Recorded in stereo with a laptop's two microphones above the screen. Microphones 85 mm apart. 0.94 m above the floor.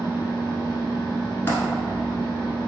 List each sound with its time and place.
0.0 s a machine running: 60° left (ahead or behind), 1.3 m
1.5 s a dropped coin: 30° left (ahead or behind), 1.0 m